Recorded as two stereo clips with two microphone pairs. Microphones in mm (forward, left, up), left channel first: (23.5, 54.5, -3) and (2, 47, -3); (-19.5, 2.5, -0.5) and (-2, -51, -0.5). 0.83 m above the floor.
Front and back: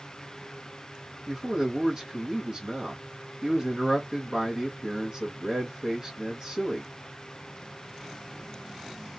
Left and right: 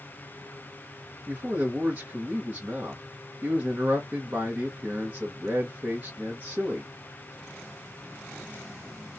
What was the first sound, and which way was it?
A man speaking, 120° right.